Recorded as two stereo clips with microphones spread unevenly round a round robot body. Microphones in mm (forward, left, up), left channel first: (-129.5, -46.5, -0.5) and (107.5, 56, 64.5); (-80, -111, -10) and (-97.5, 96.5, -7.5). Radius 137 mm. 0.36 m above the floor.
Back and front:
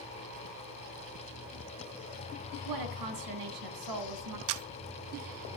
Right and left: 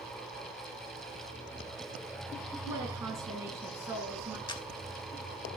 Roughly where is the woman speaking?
Ahead.